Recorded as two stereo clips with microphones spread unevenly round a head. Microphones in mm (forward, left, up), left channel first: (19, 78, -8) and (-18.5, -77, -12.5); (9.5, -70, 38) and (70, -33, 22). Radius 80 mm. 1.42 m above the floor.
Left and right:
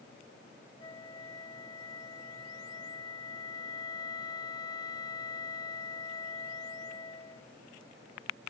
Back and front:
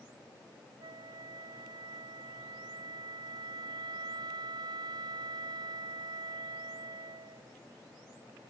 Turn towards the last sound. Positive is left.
turn(degrees=10)